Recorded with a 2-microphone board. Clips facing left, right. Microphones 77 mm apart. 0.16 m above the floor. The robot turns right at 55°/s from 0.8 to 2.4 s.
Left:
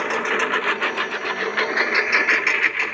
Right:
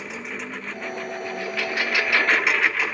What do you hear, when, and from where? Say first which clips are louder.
0.0 s a lawn mower: left 12 dB; 70° left (ahead or behind); by 2.9 s centre (ahead or behind)